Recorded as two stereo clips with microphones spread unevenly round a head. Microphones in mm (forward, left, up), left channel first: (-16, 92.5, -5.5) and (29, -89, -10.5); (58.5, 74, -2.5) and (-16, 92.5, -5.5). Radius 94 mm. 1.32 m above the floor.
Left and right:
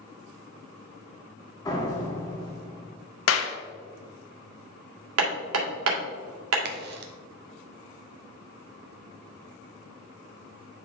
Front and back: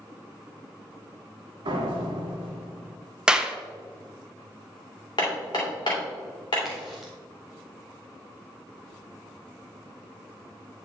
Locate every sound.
1.6 s a door slam: 175° left, 1.6 m
3.3 s a clap: 85° left, 0.9 m
5.2 s hammering: 75° right, 2.5 m
6.7 s a crack: 105° right, 0.9 m